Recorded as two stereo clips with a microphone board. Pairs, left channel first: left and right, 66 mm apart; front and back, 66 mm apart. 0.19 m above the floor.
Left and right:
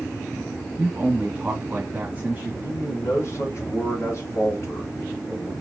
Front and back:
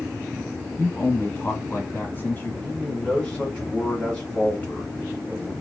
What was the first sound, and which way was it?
A man speaking, 40° right.